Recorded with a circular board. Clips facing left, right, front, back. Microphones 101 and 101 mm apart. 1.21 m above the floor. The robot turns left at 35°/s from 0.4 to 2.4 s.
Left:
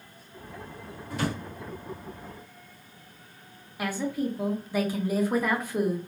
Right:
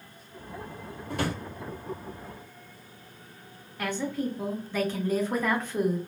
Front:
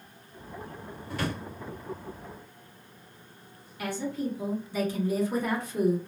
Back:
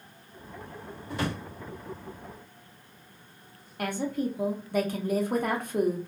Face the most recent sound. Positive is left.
turn(degrees=170)